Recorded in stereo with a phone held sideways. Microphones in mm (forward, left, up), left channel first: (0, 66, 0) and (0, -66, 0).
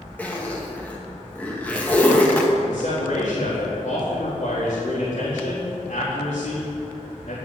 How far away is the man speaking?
About 4 m.